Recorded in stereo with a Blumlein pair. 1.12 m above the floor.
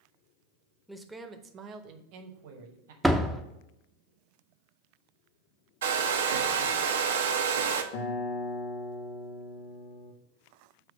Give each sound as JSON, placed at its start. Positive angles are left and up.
{"t": 0.9, "sound": "a man speaking", "azimuth_deg": 0, "distance_m": 0.7}
{"t": 3.0, "sound": "a door slam", "azimuth_deg": 0, "distance_m": 0.5}
{"t": 5.8, "sound": "a hair dryer", "azimuth_deg": -60, "distance_m": 0.6}
{"t": 7.9, "sound": "a guitar", "azimuth_deg": 45, "distance_m": 0.9}